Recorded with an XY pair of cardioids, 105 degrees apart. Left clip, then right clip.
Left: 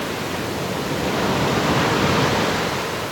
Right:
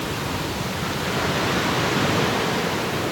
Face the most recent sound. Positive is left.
No sound to turn to.